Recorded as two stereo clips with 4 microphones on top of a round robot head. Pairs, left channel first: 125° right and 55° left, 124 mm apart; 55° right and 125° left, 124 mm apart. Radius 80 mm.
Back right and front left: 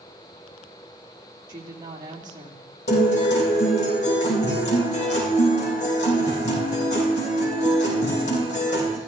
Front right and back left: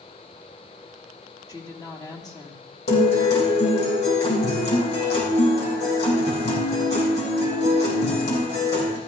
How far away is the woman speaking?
About 2 m.